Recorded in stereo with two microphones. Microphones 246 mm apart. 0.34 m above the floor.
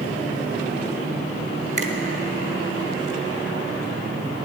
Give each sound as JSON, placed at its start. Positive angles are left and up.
{"t": 1.8, "sound": "a finger snap", "side_deg": -30, "distance_m": 1.0}